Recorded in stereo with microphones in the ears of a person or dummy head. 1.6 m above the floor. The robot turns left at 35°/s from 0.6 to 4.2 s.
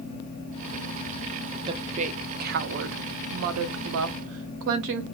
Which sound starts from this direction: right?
A woman speaking, at 1.7 s.